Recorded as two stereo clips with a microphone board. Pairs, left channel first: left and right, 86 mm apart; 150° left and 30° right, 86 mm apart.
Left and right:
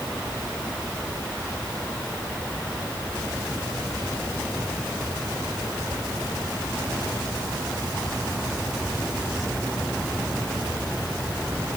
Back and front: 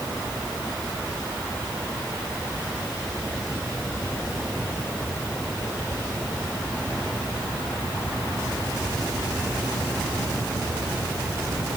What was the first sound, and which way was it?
Only background noise.